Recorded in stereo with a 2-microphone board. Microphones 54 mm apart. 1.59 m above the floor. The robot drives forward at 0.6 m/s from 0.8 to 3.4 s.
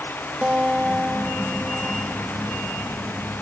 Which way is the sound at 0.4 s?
20° right (ahead or behind).